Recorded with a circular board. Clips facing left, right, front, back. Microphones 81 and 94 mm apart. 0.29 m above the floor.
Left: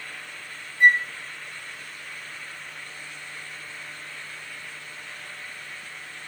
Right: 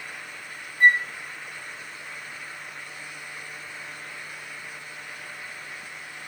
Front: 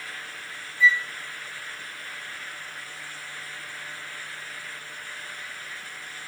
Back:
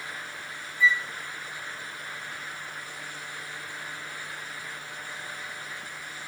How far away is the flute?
About 1.4 m.